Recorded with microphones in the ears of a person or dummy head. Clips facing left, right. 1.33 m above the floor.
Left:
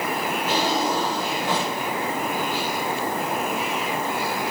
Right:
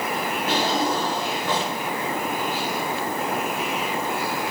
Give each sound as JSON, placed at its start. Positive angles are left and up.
{"t": 0.5, "sound": "a drawer", "side_deg": -45, "distance_m": 6.0}